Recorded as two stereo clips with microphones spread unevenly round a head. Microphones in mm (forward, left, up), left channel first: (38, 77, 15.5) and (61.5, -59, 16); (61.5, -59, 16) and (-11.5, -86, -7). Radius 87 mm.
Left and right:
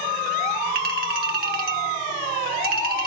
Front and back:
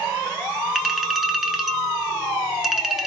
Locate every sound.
0.8 s a clink: 70° right, 1.6 m